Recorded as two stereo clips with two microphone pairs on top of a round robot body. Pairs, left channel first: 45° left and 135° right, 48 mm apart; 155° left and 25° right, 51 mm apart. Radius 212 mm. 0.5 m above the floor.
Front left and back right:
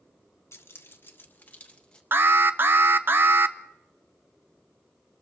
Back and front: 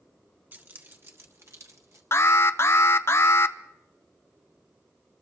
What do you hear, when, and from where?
0.5 s keys jangling: 20° left, 1.9 m; by 2.0 s 30° right, 1.8 m
2.1 s an alarm: 175° right, 0.8 m